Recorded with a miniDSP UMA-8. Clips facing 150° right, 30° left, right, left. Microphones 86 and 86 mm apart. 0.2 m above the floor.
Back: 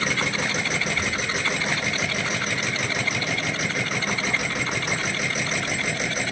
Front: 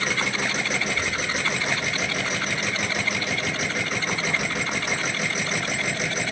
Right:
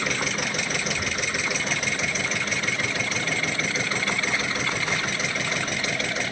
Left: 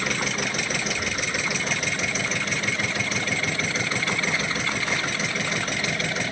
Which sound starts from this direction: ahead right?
A child speaking, at 0.8 s.